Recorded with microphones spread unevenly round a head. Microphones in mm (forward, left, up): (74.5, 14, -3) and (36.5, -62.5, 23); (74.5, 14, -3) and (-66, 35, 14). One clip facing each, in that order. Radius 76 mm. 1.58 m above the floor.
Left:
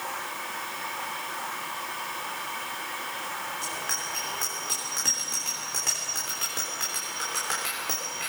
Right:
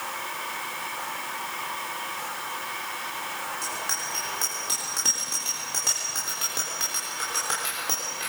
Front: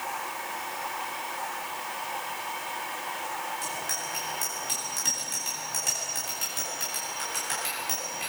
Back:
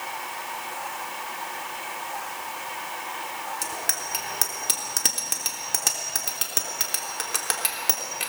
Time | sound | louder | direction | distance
3.6 | a bicycle bell | right 1 dB, back 2 dB | 165° left | 3.5 m